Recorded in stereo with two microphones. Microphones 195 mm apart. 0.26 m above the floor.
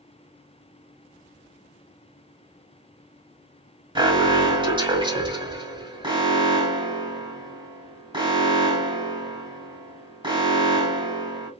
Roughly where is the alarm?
Right.